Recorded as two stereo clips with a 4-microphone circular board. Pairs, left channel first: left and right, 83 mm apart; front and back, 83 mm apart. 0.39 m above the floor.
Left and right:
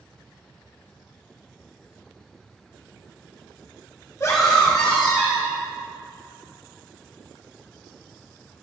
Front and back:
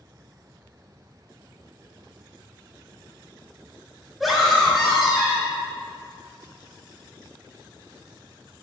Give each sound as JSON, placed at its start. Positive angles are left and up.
{"t": 4.2, "sound": "a scream", "azimuth_deg": 90, "distance_m": 1.0}